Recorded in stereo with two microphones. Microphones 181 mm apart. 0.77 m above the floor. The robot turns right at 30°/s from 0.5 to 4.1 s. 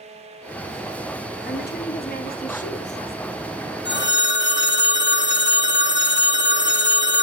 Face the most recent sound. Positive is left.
turn(degrees=80)